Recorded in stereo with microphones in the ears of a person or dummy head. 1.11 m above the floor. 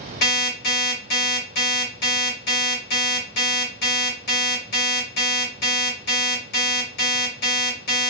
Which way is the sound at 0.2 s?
60° left (ahead or behind).